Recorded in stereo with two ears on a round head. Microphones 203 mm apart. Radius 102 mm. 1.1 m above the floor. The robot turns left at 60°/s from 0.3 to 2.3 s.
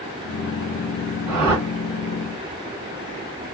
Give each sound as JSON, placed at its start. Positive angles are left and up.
{"t": 1.3, "sound": "a whoosh", "side_deg": -75, "distance_m": 1.7}